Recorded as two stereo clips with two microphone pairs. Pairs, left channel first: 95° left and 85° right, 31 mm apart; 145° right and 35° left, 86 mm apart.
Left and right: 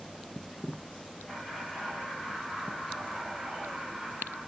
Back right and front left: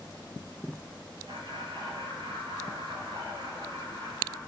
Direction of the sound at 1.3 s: 35° left.